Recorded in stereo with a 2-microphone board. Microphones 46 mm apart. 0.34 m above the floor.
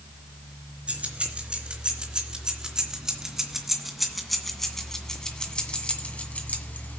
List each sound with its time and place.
0.9 s keys jangling: 30° right (ahead or behind), 3 m; by 7.0 s 40° left (ahead or behind), 1.9 m